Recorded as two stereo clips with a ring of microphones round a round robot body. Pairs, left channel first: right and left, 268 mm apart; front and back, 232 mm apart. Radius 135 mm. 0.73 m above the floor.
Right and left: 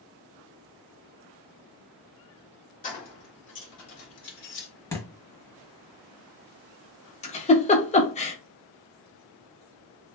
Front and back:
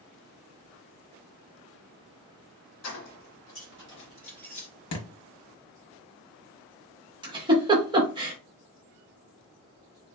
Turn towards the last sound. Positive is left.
turn(degrees=-130)